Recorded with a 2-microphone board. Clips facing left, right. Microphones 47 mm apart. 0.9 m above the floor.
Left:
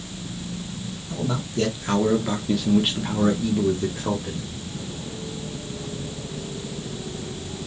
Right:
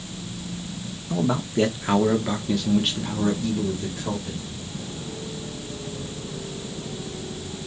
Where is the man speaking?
35° right (ahead or behind), 1.0 m; by 4.5 s 35° left (ahead or behind), 1.5 m.